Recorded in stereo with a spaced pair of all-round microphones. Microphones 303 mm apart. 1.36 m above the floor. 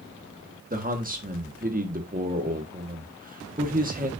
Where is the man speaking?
30° right (ahead or behind), 1.5 m.